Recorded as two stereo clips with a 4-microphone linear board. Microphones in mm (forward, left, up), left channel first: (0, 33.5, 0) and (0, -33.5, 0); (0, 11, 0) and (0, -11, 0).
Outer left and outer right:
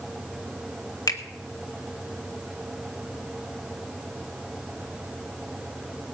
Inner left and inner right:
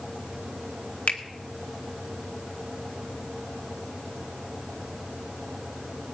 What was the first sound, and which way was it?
A finger snap, 65° left (ahead or behind).